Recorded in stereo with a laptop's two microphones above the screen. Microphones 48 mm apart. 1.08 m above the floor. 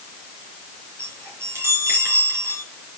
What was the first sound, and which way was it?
A chime, 55° right (ahead or behind).